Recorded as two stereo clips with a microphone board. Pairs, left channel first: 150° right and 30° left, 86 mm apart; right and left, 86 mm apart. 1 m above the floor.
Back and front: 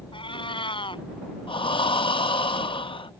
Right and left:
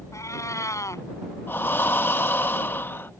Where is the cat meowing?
145° right.